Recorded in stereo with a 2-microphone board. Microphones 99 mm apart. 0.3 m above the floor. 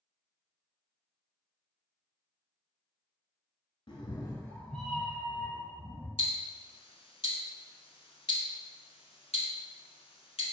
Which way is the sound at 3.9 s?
60° left (ahead or behind).